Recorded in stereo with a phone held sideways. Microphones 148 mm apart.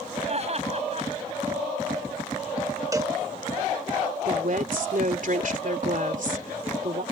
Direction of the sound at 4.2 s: 65° right (ahead or behind).